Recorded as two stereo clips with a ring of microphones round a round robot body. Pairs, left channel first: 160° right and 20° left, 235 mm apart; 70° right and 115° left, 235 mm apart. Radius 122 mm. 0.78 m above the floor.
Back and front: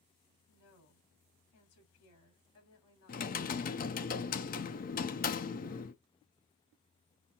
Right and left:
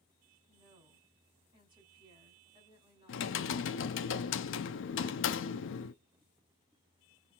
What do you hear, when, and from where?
0.5 s a woman speaking: 175° right, 2.5 m
3.1 s typing on a keyboard: 105° right, 0.6 m